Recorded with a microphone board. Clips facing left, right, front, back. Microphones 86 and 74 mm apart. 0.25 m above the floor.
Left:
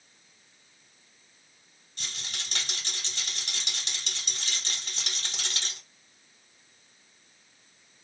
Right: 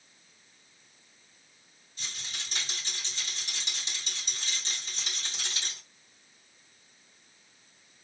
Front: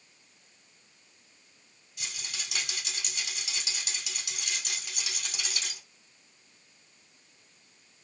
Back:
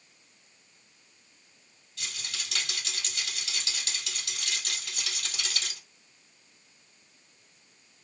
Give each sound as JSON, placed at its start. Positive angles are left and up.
{"t": 2.0, "sound": "a rattle", "azimuth_deg": 75, "distance_m": 2.0}